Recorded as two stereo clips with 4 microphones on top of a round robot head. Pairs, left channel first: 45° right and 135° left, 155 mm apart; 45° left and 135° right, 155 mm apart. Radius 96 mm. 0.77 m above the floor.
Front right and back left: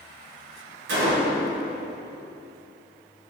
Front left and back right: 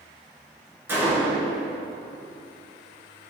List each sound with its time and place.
0.9 s a gunshot: 150° left, 2.5 m